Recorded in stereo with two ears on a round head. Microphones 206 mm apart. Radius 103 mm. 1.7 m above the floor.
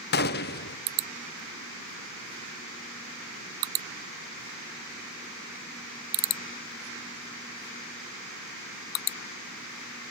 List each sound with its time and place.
0.1 s a gunshot: 45° left (ahead or behind), 0.7 m